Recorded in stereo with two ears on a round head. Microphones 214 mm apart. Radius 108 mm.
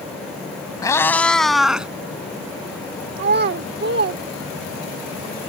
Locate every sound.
0.8 s a cat meowing: 15° left (ahead or behind); by 1.9 s 5° right (ahead or behind)
3.2 s a child speaking: 45° right (ahead or behind)